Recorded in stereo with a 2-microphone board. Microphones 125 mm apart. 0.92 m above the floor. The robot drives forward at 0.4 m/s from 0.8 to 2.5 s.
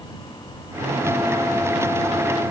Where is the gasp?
I don't hear a gasp.